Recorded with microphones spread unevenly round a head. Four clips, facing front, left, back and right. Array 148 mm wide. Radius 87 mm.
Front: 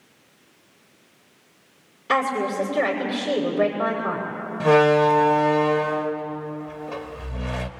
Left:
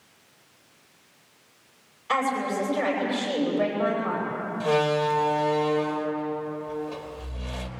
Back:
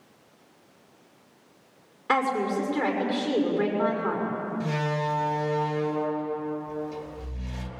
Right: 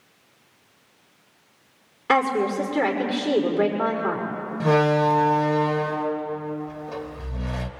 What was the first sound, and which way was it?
A woman speaking, 100° right.